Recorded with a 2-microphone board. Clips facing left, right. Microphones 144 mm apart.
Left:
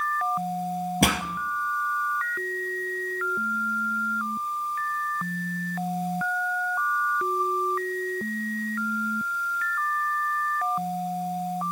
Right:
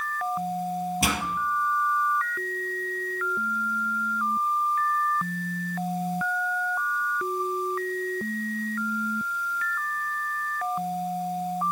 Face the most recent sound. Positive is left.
turn(degrees=60)  # may be behind; listen again after turning